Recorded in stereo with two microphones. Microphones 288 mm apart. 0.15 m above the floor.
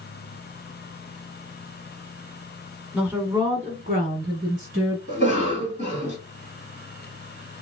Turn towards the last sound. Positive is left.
turn(degrees=-25)  # may be behind; listen again after turning